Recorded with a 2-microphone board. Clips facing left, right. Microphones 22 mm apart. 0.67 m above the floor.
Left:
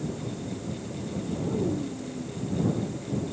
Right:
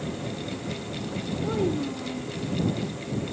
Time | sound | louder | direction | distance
1.4 | a child speaking | right 3 dB | 60° right (ahead or behind) | ?